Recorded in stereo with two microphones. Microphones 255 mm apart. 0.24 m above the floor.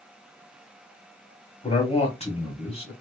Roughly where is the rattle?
I don't hear a rattle.